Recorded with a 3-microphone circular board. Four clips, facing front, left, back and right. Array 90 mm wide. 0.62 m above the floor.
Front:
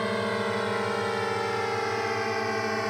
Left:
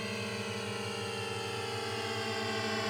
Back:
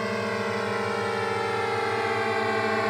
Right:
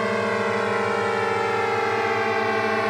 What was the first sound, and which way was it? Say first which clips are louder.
A drone: right 16 dB, even; 85° right.